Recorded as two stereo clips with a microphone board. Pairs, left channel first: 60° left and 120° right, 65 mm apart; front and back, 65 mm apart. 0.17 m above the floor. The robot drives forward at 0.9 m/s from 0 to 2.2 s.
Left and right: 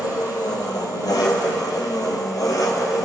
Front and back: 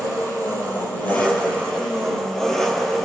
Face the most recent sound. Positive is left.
turn(degrees=80)